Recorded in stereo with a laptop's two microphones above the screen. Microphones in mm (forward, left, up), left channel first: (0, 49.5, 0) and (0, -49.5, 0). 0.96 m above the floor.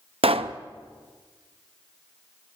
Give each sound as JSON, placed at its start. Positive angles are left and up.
{"t": 0.2, "sound": "a pop", "side_deg": -80, "distance_m": 0.6}